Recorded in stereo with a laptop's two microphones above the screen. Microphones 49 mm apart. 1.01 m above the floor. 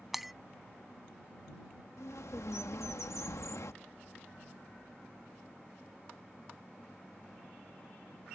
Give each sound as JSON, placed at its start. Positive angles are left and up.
{"t": 0.1, "sound": "breaking glass", "side_deg": -5}
{"t": 2.0, "sound": "a bird", "side_deg": 80}